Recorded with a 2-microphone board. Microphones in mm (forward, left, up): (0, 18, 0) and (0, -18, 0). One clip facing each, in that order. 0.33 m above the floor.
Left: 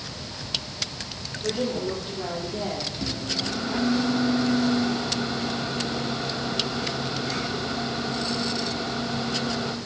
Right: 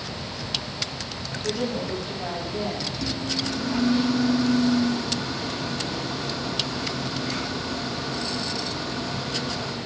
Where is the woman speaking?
60° left (ahead or behind), 10 m.